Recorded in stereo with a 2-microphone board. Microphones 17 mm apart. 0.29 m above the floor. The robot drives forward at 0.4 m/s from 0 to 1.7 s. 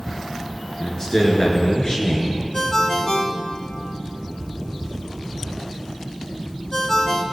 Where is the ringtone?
40° left (ahead or behind), 1.0 m.